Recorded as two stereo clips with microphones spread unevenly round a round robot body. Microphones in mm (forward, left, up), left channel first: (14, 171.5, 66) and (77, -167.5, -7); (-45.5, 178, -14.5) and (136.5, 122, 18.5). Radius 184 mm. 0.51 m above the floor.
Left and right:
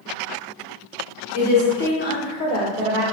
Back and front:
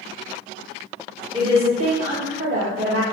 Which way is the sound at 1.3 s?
55° left.